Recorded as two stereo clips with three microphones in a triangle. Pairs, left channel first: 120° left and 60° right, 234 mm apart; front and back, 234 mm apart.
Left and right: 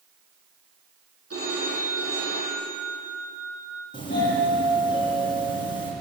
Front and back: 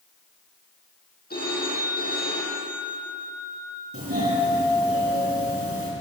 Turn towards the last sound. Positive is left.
turn(degrees=-170)